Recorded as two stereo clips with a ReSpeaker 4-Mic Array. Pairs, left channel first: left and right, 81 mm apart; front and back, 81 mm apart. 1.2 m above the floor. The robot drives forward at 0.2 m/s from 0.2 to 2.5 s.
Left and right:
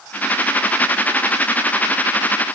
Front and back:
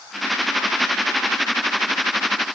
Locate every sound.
Only background noise.